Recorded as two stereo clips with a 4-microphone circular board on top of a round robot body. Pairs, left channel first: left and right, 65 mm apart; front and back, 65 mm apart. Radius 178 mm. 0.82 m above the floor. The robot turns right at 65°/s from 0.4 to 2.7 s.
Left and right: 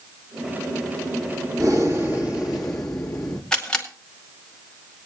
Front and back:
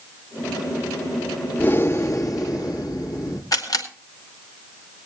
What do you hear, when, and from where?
1.6 s breathing: 70° right, 3 m; by 3.4 s 5° left, 3 m
3.5 s a camera shutter: 15° left, 2 m